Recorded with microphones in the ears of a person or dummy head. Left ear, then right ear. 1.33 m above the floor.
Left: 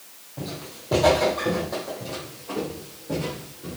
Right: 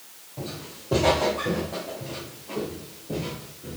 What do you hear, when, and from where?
0.4 s footsteps: 5° left (ahead or behind), 3.5 m; by 3.8 s 40° left (ahead or behind), 5.5 m